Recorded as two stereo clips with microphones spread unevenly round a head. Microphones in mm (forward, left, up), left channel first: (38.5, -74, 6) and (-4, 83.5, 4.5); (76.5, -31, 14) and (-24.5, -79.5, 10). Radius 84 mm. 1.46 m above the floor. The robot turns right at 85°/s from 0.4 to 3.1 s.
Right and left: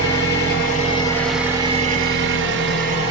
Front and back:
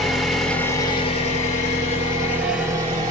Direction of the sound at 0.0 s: 60° right.